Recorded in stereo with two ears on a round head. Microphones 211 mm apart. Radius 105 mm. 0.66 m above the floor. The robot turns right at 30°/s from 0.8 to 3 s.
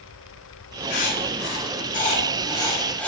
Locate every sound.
0.9 s writing: 60° left (ahead or behind), 1.8 m; by 3.1 s 5° left (ahead or behind), 1.8 m